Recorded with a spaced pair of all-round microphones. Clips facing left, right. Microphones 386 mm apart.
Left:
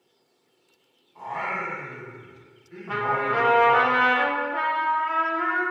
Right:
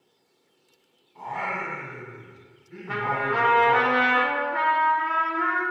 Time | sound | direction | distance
1.1 | singing | 35° right (ahead or behind) | 1.4 m
2.9 | a trumpet | 35° right (ahead or behind) | 0.7 m